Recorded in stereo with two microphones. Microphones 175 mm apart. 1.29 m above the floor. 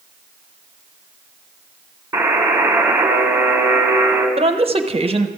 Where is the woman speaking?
35° right (ahead or behind), 0.8 m.